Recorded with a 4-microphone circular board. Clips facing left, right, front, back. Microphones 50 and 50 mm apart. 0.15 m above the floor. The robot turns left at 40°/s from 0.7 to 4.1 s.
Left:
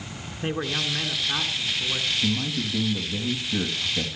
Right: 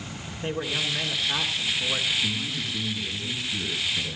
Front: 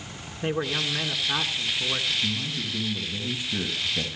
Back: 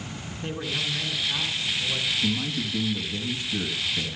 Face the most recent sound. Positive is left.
turn(degrees=35)